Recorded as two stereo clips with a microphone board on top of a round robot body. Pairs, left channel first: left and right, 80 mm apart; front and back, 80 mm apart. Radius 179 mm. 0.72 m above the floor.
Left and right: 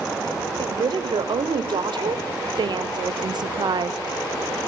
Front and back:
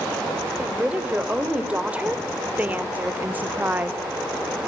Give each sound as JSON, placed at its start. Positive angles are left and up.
{"t": 0.6, "sound": "a woman speaking", "azimuth_deg": -105, "distance_m": 3.5}